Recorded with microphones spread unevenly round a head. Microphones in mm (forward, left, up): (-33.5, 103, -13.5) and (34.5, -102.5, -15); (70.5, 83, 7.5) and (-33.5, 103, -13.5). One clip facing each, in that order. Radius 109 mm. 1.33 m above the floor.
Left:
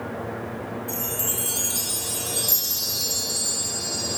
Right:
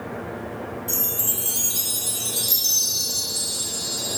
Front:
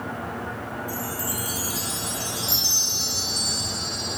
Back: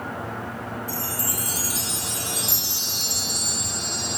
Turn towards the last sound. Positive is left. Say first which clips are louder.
# left 1 dB, front 1 dB
turn(degrees=-135)